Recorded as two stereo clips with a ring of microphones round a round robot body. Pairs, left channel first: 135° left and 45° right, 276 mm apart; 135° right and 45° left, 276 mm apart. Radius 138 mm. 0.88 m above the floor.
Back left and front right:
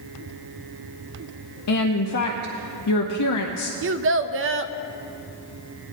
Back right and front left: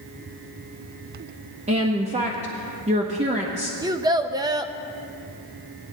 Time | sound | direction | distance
1.7 | a woman speaking | 110° left | 0.8 m
3.8 | a child speaking | 25° right | 0.5 m